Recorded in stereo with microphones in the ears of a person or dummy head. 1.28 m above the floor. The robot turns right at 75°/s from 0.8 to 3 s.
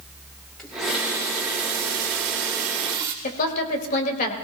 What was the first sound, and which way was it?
A running tap, 175° left.